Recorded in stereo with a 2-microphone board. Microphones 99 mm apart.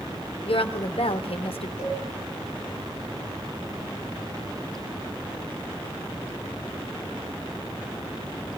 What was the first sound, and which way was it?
A woman speaking, 70° left (ahead or behind).